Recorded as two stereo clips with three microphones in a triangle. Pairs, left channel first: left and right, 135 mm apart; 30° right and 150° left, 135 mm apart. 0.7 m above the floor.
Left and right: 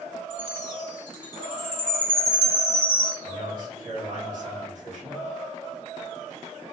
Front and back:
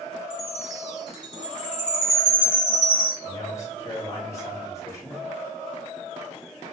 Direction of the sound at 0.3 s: 80° right.